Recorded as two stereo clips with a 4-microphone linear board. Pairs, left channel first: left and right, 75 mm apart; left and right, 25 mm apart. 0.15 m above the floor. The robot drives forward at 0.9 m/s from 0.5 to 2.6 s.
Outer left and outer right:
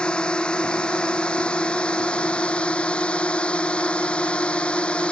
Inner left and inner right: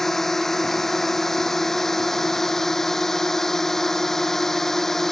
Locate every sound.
0.0 s a drone: 15° left (ahead or behind)